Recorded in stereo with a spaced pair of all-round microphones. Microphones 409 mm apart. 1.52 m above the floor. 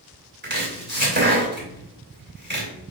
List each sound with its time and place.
0.4 s chopping: 25° right (ahead or behind), 3 m